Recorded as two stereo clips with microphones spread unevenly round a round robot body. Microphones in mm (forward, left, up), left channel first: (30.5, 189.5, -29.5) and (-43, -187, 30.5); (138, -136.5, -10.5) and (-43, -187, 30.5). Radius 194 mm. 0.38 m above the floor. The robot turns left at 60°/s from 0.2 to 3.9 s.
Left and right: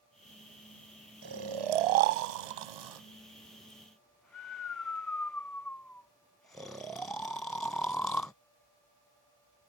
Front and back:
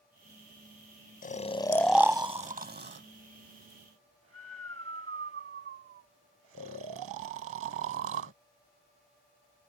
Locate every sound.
1.2 s snoring: 30° right; by 8.3 s 165° left